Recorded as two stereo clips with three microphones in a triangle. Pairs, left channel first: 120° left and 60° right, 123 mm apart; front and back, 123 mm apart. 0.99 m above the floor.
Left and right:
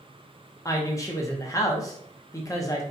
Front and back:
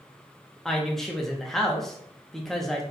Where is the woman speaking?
85° left, 0.7 m.